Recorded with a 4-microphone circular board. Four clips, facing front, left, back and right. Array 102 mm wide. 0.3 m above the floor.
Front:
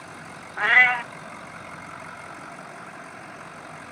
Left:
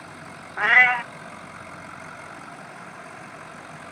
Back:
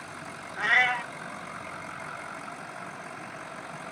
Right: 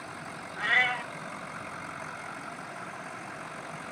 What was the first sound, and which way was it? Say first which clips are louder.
A cat meowing: left 9 dB, front 5 dB; 70° left.